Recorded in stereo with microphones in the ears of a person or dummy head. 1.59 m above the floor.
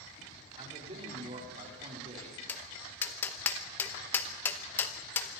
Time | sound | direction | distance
0.5 | a man speaking | 35° right (ahead or behind) | 4.5 m
2.5 | tapping | 10° left (ahead or behind) | 1.0 m